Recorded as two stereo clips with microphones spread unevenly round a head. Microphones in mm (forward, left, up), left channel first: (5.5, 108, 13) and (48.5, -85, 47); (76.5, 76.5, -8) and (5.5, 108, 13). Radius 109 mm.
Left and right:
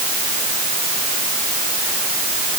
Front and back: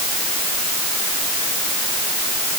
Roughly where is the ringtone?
I don't hear a ringtone.